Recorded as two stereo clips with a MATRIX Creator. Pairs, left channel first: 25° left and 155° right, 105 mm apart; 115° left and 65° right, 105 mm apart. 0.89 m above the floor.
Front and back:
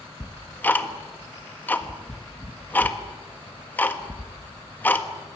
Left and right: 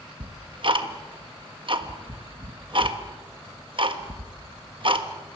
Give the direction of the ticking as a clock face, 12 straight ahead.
2 o'clock.